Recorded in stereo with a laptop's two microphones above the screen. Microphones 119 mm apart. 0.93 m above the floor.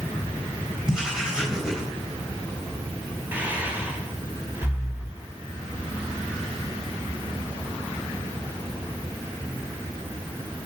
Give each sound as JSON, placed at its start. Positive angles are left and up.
{"t": 0.9, "sound": "writing", "side_deg": -5, "distance_m": 4.0}
{"t": 3.3, "sound": "breathing", "side_deg": -15, "distance_m": 3.0}